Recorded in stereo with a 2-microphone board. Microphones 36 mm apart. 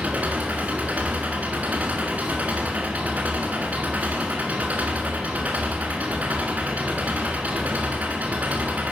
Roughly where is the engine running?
Right.